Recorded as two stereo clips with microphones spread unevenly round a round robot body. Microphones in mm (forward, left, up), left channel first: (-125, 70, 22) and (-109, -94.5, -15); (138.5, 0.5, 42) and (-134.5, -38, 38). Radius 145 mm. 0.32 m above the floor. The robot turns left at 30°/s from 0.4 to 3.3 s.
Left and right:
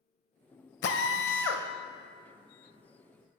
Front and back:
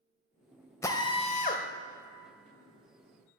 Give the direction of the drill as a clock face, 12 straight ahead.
9 o'clock.